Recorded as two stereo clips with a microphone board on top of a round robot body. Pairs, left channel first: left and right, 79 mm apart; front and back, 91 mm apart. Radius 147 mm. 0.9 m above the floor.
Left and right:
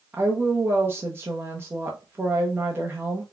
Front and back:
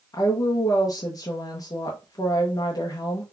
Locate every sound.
0.1 s a woman speaking: 35° right, 0.8 m